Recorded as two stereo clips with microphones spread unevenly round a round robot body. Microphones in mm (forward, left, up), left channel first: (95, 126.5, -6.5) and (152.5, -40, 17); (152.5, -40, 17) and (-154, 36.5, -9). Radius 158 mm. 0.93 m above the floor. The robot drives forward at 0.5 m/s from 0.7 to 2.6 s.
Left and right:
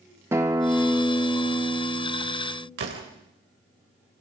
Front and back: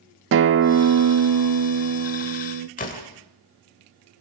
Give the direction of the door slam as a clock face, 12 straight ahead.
3 o'clock.